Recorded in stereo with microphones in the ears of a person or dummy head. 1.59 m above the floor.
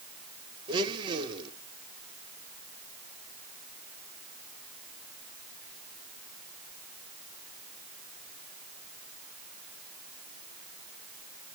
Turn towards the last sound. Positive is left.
turn(degrees=-25)  # may be behind; listen again after turning